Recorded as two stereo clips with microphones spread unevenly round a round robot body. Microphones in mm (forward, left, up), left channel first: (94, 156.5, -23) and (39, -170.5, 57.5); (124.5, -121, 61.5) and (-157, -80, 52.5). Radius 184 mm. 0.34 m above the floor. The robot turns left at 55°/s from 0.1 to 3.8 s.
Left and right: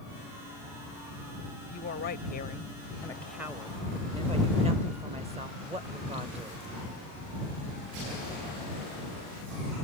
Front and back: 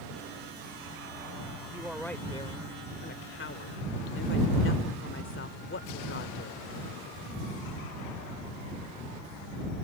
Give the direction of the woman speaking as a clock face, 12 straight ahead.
9 o'clock.